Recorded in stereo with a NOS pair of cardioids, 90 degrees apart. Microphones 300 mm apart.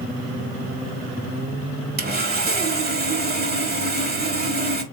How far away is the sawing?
About 3.5 m.